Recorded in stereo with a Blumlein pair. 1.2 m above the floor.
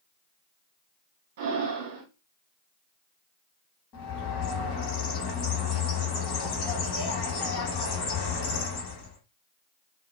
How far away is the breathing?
About 1.0 m.